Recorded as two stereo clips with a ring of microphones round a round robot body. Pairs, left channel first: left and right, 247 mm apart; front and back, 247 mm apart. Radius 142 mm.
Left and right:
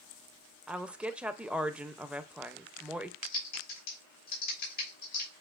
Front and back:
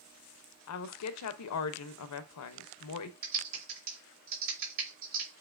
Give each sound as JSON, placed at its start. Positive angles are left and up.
{"t": 0.7, "sound": "a woman speaking", "azimuth_deg": -5, "distance_m": 0.7}
{"t": 3.2, "sound": "typing on a keyboard", "azimuth_deg": 145, "distance_m": 2.5}